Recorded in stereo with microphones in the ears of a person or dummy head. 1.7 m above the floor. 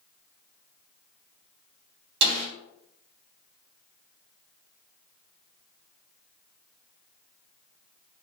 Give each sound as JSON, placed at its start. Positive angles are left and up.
{"t": 2.2, "sound": "a snare drum", "side_deg": -70, "distance_m": 1.1}